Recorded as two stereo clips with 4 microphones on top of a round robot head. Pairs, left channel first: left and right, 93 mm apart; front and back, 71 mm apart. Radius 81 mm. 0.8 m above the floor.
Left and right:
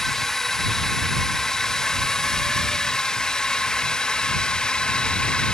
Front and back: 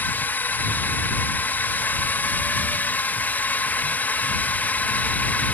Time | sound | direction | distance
0.0 | a drone | 10° left | ?